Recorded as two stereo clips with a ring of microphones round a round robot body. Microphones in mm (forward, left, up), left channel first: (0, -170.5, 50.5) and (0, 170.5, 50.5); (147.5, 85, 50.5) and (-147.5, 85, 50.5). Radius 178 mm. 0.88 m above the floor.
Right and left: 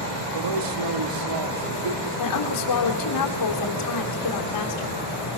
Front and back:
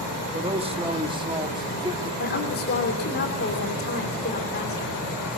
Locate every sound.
0.3 s a man speaking: 110° left, 1.8 m; by 2.1 s 105° left, 3 m
2.2 s a woman speaking: 60° right, 3 m